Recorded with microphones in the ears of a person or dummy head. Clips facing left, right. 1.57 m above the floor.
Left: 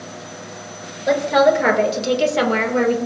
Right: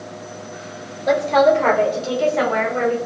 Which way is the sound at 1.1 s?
10° left (ahead or behind).